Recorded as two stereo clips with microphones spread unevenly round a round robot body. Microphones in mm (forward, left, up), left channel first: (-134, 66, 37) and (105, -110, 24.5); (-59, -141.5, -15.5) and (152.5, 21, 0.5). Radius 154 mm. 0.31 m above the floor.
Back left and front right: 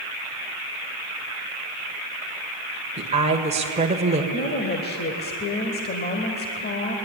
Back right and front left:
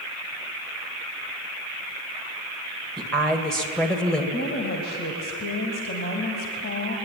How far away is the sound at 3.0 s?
About 1.6 m.